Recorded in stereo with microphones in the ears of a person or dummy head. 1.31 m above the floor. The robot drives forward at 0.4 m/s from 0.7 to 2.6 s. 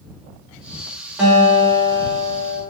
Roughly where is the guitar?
Centre.